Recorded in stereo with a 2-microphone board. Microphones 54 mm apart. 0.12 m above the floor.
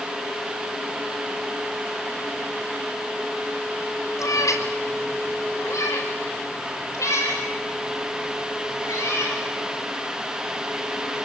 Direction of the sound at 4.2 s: 75° left (ahead or behind).